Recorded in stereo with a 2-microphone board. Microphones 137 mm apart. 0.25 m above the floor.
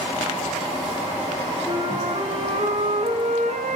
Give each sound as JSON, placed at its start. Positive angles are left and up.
{"t": 1.7, "sound": "a flute", "side_deg": -60, "distance_m": 1.4}